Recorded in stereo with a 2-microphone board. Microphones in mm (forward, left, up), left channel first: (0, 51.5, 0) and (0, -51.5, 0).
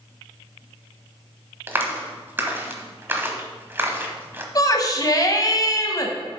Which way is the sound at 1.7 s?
20° right (ahead or behind).